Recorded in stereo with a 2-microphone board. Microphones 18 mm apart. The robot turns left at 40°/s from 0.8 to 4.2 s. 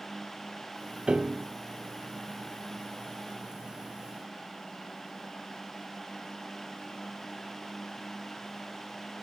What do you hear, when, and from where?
1.1 s a piano: 80° right, 1.1 m; by 1.5 s 65° right (ahead or behind), 1.1 m